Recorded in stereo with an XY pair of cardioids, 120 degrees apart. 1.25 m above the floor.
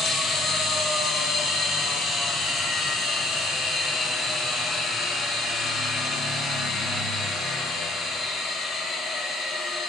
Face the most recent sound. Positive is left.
turn(degrees=55)